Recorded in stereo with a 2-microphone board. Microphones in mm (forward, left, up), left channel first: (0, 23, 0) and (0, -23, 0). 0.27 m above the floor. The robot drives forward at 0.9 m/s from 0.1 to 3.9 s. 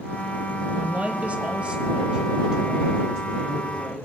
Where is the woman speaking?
30° right (ahead or behind), 1.0 m; by 4.0 s 10° right (ahead or behind), 3 m.